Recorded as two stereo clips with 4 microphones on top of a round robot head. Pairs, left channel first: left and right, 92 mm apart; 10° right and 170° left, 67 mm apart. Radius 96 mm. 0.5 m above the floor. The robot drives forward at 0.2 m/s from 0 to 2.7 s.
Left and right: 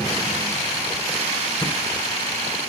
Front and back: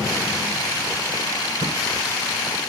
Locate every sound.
1.6 s a thud: 175° left, 1.6 m